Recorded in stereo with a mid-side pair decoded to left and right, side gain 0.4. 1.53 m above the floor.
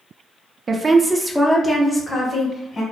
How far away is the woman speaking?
About 0.5 m.